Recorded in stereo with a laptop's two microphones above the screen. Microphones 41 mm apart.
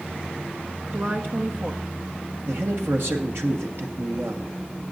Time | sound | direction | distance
0.9 | a woman speaking | 60° right (ahead or behind) | 1.1 m
2.5 | a man speaking | 65° right (ahead or behind) | 1.3 m